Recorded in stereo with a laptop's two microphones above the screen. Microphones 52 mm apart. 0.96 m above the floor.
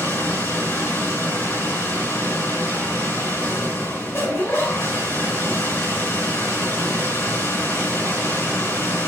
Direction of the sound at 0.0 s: 50° left (ahead or behind).